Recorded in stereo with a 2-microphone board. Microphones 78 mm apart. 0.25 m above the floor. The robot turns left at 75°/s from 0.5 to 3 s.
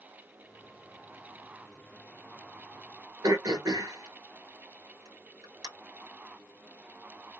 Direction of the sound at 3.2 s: 55° right (ahead or behind).